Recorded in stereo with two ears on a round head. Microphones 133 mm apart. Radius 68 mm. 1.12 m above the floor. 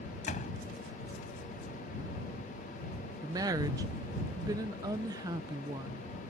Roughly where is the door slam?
Left.